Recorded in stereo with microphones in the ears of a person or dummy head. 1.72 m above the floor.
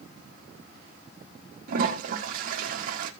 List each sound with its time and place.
1.7 s a toilet flushing: 50° right (ahead or behind), 1.6 m